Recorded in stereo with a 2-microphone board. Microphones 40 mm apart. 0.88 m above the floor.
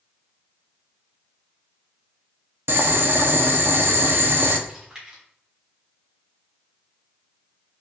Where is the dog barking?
I don't hear a dog barking.